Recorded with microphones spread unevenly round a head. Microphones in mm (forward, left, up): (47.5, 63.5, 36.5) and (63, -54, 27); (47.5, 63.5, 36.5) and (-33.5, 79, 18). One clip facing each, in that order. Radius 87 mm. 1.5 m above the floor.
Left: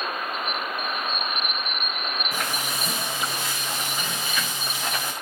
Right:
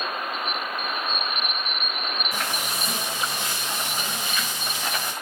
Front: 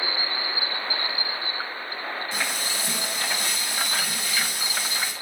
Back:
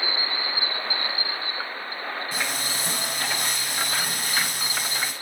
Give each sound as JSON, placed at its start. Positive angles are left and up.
{"t": 2.3, "sound": "frying", "azimuth_deg": 125, "distance_m": 7.5}